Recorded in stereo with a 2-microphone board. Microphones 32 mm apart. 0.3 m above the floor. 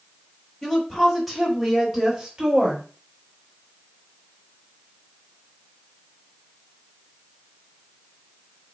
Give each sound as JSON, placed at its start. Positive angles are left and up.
{"t": 0.6, "sound": "a woman speaking", "side_deg": 10, "distance_m": 1.7}